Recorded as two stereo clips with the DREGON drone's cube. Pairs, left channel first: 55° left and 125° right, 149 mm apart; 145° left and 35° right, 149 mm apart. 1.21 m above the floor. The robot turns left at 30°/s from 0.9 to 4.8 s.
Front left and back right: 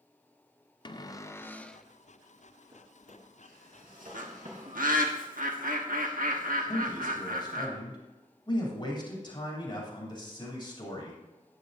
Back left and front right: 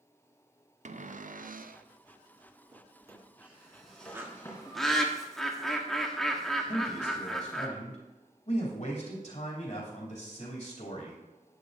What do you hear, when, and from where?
0.8 s a cupboard door: 5° right, 0.5 m; by 1.9 s 30° right, 0.5 m
2.7 s a drawer: 90° right, 3 m; by 4.9 s 155° right, 3 m
4.1 s a bird: 105° right, 1.3 m; by 7.7 s 125° right, 1.3 m
6.7 s a man speaking: 110° left, 3 m